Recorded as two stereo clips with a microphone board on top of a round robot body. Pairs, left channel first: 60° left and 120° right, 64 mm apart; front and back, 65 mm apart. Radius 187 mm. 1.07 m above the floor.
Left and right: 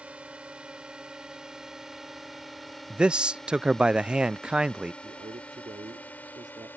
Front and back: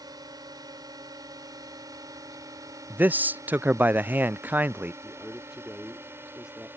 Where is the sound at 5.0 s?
100° right.